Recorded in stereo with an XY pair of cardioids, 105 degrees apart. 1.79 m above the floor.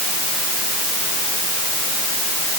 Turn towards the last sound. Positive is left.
No sound to turn to.